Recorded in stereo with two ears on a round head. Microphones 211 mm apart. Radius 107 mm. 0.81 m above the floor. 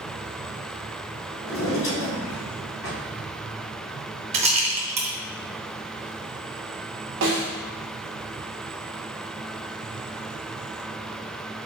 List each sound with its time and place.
1.4 s a drawer: 80° left, 2.0 m
4.3 s a rattle: 25° right (ahead or behind), 0.7 m
7.2 s a snare drum: 55° right (ahead or behind), 1.2 m